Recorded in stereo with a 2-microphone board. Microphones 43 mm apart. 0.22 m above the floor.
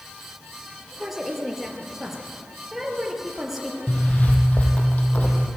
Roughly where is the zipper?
Left.